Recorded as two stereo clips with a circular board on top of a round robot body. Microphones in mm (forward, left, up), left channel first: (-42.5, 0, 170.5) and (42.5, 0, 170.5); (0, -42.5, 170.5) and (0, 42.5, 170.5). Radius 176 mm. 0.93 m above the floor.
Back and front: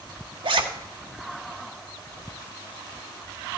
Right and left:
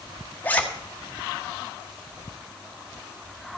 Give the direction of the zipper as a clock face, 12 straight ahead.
1 o'clock.